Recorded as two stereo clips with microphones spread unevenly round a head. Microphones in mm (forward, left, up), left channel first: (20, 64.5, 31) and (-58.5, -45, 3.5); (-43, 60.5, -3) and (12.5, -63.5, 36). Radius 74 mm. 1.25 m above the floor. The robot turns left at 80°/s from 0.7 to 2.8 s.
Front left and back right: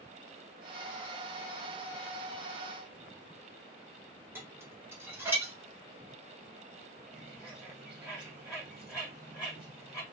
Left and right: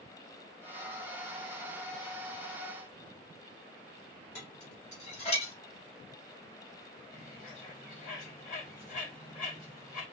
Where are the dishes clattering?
160° left, 2 m.